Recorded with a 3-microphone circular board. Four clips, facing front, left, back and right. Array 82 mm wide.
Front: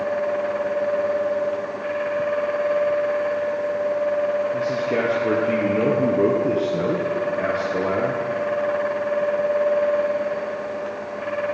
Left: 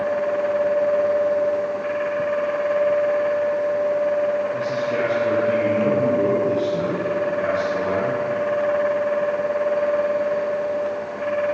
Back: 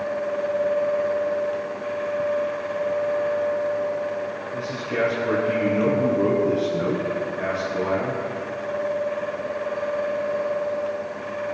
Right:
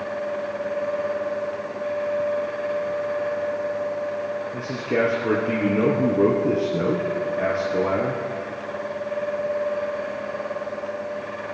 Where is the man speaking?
50° right, 3 m.